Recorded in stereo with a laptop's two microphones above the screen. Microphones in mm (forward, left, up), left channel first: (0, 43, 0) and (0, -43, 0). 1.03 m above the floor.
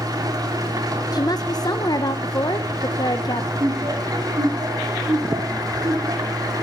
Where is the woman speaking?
50° left (ahead or behind), 0.6 m.